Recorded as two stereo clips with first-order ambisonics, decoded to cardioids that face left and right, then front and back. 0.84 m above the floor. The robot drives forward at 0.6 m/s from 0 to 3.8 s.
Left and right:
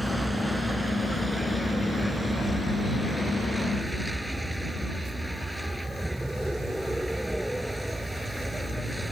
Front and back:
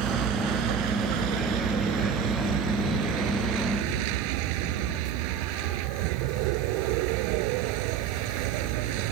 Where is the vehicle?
175° right.